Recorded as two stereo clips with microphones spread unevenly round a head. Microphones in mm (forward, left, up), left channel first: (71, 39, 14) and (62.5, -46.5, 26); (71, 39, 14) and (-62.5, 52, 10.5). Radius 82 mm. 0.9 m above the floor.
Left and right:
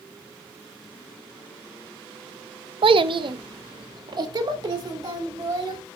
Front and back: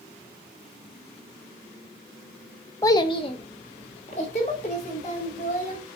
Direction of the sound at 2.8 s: 75° right.